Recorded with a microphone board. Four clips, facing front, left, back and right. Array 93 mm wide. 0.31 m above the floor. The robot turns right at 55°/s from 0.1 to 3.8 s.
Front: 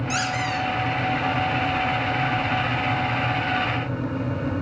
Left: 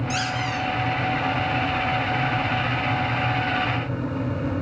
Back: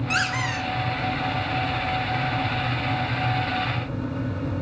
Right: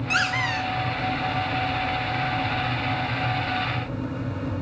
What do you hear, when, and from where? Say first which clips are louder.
0.1 s a squeak: right 4 dB, even; 130° right, 1.2 m; by 0.7 s 100° right, 1.2 m